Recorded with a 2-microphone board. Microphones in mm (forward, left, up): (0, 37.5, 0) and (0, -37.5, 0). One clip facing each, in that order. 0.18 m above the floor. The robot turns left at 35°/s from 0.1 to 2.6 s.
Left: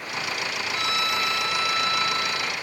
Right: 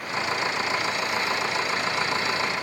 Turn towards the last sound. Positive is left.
turn(degrees=45)